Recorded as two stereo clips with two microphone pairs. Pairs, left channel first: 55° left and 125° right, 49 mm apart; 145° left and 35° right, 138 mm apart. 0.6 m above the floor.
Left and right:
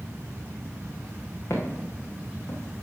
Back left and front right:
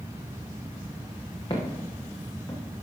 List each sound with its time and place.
1.5 s footsteps: 90° left, 3 m; by 2.6 s 75° left, 3 m